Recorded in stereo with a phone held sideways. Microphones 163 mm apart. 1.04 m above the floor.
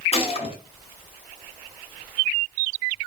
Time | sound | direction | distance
0.1 | a gunshot | 40° left (ahead or behind) | 0.8 m